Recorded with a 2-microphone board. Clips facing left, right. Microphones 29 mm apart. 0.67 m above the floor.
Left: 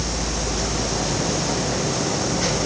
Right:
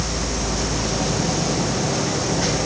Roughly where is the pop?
I don't hear a pop.